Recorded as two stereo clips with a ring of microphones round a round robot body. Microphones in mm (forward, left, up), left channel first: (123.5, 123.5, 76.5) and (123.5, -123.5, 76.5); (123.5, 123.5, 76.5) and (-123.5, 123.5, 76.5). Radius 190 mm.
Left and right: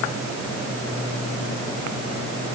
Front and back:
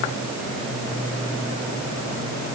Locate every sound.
Only background noise.